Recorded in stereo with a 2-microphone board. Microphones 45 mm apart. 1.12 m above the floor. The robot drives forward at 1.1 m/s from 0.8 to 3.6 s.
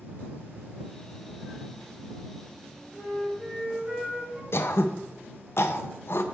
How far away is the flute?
About 2.0 m.